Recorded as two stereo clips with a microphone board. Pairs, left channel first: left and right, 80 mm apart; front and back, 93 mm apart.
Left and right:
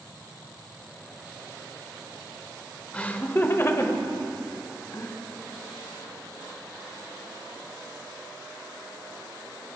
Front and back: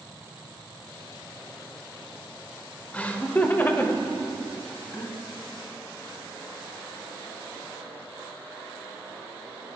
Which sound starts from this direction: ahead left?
Laughter, at 2.9 s.